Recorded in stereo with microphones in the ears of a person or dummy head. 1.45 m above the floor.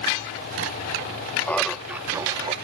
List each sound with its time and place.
1.5 s laughter: 10° left (ahead or behind); by 2.5 s 30° right (ahead or behind)